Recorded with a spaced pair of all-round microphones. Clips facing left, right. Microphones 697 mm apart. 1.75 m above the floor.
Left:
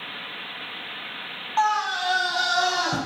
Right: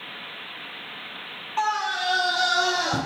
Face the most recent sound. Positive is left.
turn(degrees=30)  # may be behind; listen again after turning